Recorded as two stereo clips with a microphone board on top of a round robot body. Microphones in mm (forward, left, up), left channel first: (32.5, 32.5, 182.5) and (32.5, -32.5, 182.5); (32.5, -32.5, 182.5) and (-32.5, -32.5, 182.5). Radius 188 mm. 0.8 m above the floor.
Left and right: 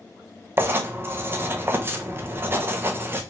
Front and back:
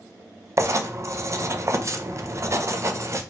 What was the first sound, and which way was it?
Writing, 140° right.